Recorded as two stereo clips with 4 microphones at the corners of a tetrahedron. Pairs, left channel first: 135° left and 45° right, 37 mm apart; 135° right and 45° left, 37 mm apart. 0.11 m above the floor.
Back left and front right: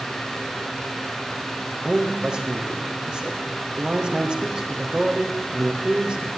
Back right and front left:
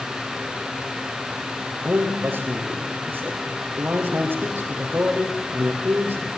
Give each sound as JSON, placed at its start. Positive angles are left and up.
{"t": 1.8, "sound": "a man speaking", "azimuth_deg": 15, "distance_m": 5.0}